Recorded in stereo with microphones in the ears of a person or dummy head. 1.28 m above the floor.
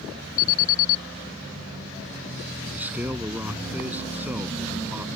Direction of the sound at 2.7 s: 10° right (ahead or behind).